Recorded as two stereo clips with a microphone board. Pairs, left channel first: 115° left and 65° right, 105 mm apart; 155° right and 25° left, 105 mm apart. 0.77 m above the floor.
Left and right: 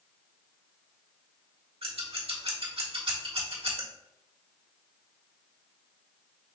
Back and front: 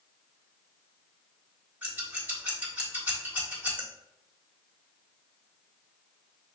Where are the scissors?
50° right, 1.4 m.